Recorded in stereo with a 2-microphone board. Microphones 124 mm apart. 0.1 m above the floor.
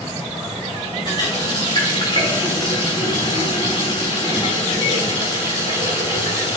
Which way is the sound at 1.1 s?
40° left (ahead or behind).